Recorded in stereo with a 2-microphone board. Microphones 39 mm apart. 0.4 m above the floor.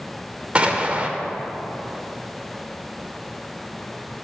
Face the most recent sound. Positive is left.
turn(degrees=-30)  # may be behind; listen again after turning